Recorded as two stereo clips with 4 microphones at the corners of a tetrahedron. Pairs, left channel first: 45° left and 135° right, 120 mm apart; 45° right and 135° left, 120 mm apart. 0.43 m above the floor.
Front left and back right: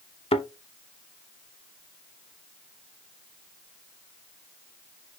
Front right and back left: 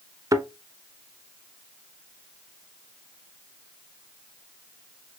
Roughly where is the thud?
Left.